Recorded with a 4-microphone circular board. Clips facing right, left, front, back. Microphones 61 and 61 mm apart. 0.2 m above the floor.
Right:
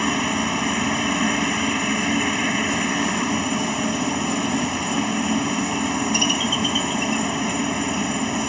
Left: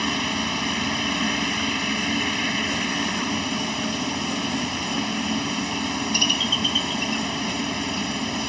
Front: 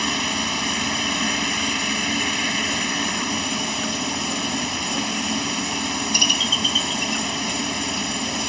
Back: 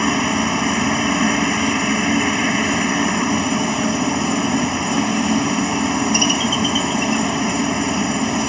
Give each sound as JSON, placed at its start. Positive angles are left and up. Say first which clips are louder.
{"t": 0.0, "sound": "a helicopter", "louder": "right 4 dB, back 7 dB", "azimuth_deg": -145}